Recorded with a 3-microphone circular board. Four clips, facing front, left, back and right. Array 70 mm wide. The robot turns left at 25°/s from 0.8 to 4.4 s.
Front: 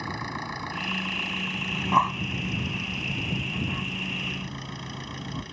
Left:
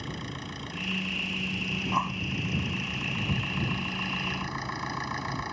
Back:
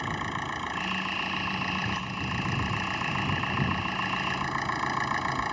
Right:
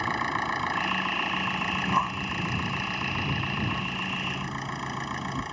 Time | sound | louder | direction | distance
0.0 | an engine running | right 11 dB, back 1 dB | 95° right | ?
1.7 | breathing | right 2 dB, front 9 dB | 10° right | ?